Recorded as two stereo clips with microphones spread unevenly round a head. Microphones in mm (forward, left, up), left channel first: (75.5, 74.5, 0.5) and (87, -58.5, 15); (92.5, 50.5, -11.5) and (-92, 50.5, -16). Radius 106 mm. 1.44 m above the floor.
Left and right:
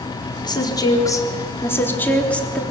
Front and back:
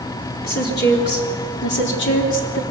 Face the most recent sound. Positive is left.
turn(degrees=10)